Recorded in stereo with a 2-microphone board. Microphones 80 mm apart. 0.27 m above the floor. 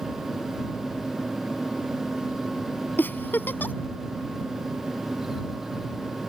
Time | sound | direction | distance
3.0 | a giggle | 25° left (ahead or behind) | ?